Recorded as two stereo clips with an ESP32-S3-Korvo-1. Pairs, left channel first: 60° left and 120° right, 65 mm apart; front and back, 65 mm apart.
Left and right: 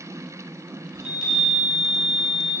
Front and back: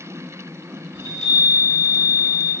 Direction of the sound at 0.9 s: 35° right.